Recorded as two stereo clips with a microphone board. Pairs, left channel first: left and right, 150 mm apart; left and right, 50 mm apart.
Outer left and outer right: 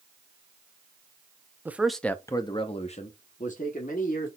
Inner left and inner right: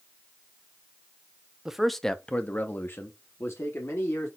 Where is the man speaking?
15° right (ahead or behind), 0.6 m; by 4.3 s 70° left (ahead or behind), 1.3 m.